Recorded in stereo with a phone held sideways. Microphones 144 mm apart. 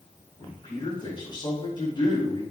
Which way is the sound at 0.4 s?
40° left (ahead or behind).